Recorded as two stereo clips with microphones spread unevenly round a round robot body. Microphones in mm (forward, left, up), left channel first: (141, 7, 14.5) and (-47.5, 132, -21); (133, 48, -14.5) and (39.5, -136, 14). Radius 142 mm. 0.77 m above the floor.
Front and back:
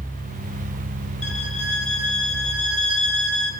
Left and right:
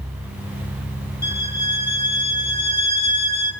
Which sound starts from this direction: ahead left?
A violin, at 1.2 s.